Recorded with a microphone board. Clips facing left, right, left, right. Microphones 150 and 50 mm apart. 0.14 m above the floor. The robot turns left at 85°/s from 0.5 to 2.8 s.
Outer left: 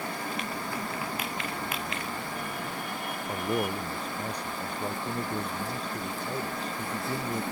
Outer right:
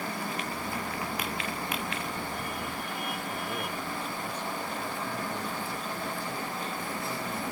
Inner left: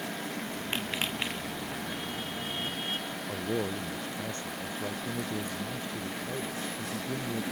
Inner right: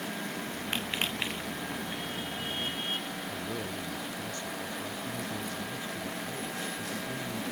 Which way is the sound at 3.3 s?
40° left (ahead or behind).